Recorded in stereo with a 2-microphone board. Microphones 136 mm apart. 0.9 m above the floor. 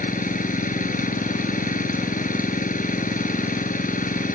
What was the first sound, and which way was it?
An engine running, 75° left (ahead or behind).